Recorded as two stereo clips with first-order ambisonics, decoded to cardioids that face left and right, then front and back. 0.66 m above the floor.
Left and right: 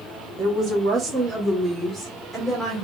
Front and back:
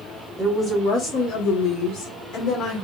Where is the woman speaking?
65° right, 0.8 m; by 2.9 s 5° left, 1.6 m.